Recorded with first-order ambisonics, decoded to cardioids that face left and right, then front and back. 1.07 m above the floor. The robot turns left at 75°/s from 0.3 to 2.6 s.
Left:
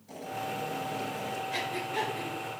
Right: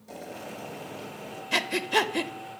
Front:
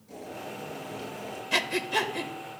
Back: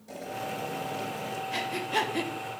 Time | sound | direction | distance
0.1 | boiling | 130° right | 2 m
1.5 | breathing | 55° right | 0.5 m